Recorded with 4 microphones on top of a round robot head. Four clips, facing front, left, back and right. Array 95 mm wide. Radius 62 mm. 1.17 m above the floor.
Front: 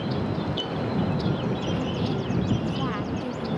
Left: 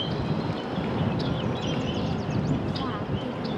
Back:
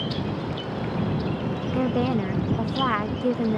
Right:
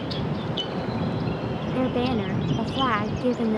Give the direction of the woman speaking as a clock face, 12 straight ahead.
5 o'clock.